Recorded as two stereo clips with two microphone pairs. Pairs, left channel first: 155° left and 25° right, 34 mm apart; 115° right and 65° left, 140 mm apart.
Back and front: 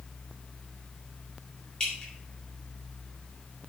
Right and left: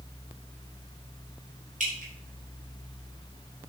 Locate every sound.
1.8 s dripping: 85° left, 4 m